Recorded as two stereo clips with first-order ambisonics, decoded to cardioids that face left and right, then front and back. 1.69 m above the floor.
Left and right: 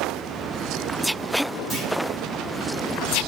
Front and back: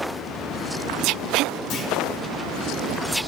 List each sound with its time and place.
1.7 s a clunk: 20° right, 2 m